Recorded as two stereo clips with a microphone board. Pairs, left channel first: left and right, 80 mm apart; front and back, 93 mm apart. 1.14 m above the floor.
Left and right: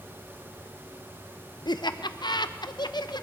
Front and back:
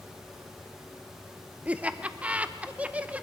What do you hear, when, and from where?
1.6 s laughter: 105° left, 0.8 m